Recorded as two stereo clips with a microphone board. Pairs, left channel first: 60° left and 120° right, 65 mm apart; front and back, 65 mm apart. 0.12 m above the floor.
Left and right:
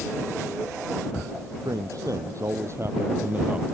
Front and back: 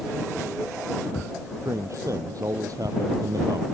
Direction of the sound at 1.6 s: 145° right.